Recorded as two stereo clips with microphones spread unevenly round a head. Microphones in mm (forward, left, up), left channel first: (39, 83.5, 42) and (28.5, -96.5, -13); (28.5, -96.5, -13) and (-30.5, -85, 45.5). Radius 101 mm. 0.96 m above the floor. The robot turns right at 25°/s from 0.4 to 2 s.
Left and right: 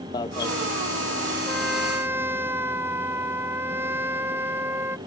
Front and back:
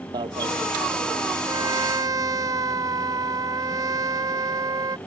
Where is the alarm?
160° left.